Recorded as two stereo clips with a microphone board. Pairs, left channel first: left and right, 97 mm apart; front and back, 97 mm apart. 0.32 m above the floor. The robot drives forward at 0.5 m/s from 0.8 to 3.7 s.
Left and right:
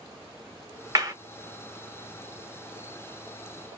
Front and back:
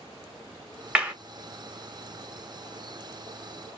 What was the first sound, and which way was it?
A clap, 105° right.